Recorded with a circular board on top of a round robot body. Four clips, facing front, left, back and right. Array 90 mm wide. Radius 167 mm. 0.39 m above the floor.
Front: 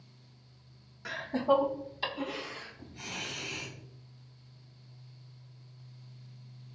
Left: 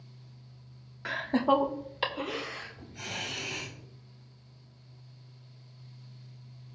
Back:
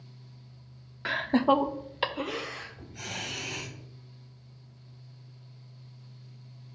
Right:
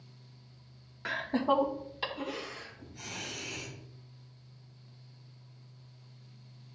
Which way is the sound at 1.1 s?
Straight behind.